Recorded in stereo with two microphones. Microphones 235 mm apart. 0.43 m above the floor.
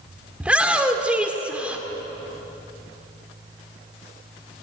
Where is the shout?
5° right (ahead or behind), 1.3 m.